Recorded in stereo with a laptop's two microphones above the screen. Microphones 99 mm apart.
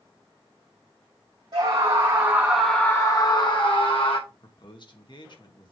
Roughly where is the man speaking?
Left.